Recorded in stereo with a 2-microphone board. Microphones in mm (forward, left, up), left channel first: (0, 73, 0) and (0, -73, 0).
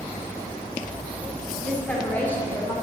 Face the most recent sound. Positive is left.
turn(degrees=15)  # may be behind; listen again after turning